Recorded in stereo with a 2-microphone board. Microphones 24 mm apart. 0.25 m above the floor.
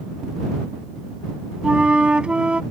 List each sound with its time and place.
1.6 s a flute: 50° right (ahead or behind)